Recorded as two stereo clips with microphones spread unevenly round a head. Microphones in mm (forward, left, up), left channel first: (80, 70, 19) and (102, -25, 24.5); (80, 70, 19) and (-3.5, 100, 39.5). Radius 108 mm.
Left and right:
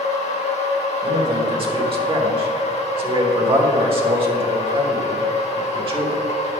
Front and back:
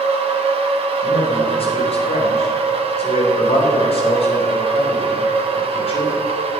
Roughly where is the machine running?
Behind left.